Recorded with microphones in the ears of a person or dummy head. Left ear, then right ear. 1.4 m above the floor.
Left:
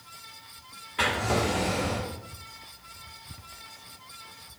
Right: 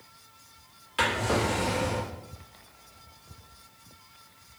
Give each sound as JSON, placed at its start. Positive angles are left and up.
{"t": 1.0, "sound": "a drawer", "side_deg": -30, "distance_m": 1.6}